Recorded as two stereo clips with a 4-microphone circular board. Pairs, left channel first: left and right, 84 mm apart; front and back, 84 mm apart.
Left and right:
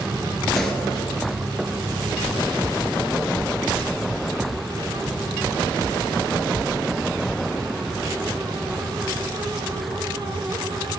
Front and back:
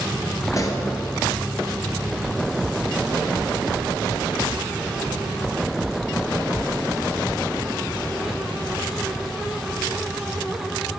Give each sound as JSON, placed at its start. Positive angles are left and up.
{"t": 0.5, "sound": "a pop", "azimuth_deg": 5, "distance_m": 1.2}